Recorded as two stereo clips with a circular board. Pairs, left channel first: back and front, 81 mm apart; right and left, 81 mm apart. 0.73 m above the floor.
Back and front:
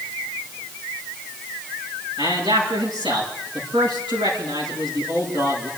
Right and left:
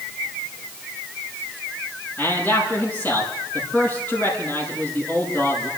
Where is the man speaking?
20° right, 6.5 m.